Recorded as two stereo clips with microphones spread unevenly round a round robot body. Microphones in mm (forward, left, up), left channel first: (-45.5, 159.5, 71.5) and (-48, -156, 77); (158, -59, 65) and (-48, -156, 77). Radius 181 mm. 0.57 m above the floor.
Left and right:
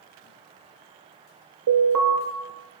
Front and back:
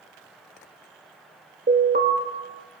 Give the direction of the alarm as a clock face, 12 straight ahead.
4 o'clock.